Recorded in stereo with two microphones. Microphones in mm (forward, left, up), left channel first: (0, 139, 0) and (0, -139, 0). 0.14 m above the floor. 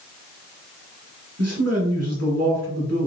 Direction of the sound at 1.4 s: 55° right (ahead or behind).